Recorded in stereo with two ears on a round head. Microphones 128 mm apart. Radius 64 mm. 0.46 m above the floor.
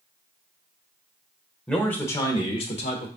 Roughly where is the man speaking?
Centre.